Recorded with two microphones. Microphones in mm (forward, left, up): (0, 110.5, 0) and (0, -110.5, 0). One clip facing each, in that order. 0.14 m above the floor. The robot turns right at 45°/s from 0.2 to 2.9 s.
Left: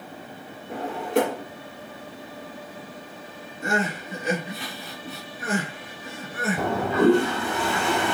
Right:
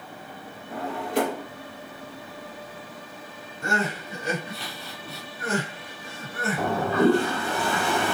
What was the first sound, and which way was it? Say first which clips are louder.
A drawer: left 3 dB; 75° left (ahead or behind).